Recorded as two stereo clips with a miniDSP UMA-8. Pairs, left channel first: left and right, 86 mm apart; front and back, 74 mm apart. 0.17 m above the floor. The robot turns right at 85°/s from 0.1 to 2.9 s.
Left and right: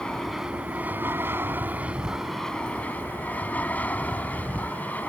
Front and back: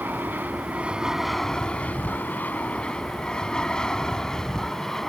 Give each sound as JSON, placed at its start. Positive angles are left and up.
{"t": 0.0, "sound": "an aircraft", "azimuth_deg": 160}